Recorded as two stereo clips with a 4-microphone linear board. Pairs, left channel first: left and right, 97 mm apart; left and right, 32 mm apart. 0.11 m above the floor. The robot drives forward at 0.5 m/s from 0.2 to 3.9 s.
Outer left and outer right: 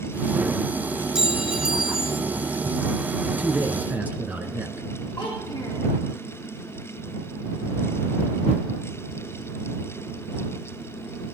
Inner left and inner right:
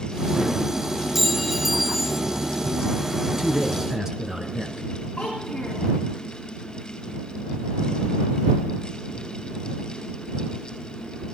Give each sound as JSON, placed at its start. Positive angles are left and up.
{"t": 1.1, "sound": "a clink", "side_deg": -5, "distance_m": 0.8}
{"t": 3.3, "sound": "a man speaking", "side_deg": -20, "distance_m": 1.3}
{"t": 5.2, "sound": "a child speaking", "side_deg": 20, "distance_m": 4.5}